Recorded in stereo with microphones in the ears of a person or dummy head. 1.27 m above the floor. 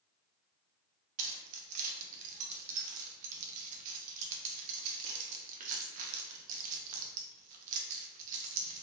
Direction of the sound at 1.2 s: 50° right (ahead or behind).